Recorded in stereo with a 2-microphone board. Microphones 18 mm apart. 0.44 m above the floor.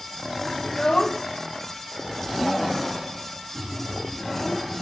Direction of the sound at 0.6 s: 40° left (ahead or behind).